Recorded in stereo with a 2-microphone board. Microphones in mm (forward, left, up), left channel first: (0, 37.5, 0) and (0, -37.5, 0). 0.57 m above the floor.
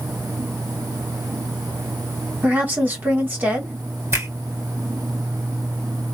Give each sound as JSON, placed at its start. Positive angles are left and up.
{"t": 2.4, "sound": "a woman speaking", "side_deg": -25, "distance_m": 1.6}
{"t": 4.1, "sound": "a finger snap", "side_deg": -35, "distance_m": 2.0}